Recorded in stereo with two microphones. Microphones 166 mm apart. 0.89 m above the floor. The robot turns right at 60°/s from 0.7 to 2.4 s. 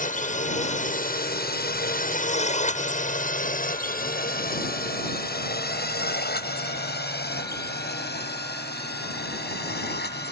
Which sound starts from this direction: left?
A drone, at 0.0 s.